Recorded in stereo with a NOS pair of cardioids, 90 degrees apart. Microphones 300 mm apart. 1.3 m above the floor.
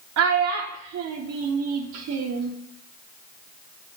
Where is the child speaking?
60° right, 0.7 m.